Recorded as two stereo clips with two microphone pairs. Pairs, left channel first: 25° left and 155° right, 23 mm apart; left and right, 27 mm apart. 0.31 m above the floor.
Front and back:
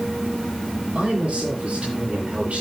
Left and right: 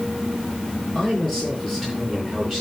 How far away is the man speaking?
About 7 m.